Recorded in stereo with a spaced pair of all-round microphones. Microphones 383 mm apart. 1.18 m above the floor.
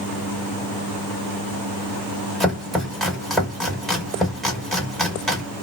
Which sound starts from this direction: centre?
Chopping, at 2.4 s.